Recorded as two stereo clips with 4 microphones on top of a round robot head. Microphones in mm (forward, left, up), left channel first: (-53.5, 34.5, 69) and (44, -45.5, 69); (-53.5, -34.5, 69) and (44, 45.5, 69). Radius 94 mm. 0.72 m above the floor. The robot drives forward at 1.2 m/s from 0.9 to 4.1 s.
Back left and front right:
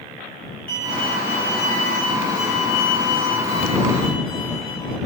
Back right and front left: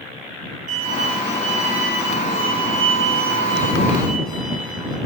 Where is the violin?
65° left, 7.5 m; by 5.0 s 95° left, 7 m.